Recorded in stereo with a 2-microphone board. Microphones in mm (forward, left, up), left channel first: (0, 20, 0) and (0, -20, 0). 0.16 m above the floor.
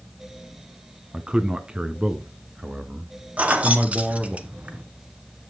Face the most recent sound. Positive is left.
turn(degrees=-35)  # may be behind; listen again after turning